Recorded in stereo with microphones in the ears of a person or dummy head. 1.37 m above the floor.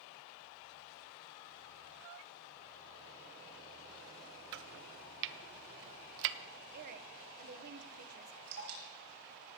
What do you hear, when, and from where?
4.5 s chopping: 75° right (ahead or behind), 0.7 m
6.7 s a woman speaking: 45° right (ahead or behind), 0.9 m
8.5 s dripping: 55° right (ahead or behind), 5 m